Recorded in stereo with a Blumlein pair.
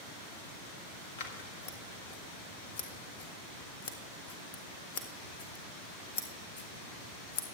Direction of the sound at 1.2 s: 50° left.